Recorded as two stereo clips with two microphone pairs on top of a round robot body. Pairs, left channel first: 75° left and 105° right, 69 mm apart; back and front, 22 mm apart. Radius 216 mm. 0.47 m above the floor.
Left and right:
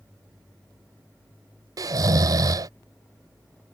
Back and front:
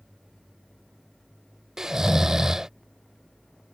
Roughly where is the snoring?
Right.